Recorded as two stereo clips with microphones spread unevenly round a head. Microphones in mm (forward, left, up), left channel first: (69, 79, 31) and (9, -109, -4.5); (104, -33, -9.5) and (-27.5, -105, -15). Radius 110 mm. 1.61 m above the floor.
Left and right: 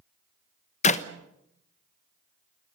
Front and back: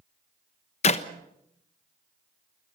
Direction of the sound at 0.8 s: 50° left.